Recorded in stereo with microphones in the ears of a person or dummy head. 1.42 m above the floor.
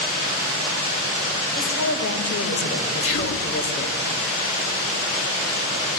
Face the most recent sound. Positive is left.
turn(degrees=80)